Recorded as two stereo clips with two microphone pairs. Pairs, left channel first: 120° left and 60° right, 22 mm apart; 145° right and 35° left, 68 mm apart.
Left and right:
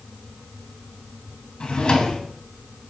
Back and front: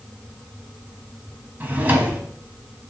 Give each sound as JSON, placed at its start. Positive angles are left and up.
{"t": 1.6, "sound": "a drawer", "azimuth_deg": 90, "distance_m": 0.6}